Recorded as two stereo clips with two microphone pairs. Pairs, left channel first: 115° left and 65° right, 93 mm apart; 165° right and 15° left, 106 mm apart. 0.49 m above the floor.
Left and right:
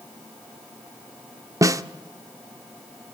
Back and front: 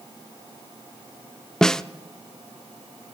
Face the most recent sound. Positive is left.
turn(degrees=-85)